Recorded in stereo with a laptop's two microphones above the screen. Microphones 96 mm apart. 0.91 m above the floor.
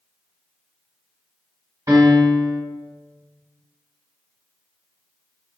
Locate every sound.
1.9 s a piano: 35° right (ahead or behind), 1.5 m